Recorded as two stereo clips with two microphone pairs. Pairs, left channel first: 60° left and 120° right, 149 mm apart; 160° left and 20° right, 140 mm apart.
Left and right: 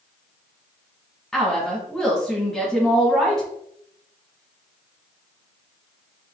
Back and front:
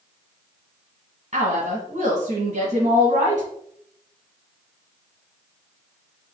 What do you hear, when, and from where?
1.3 s a woman speaking: 25° right, 1.6 m